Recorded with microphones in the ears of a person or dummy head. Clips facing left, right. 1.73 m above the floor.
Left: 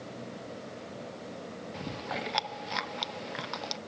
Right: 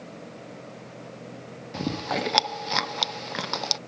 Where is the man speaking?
No man speaking in this recording.